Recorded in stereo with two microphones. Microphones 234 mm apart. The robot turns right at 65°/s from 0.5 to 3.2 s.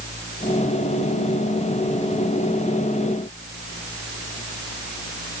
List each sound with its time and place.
Only background noise.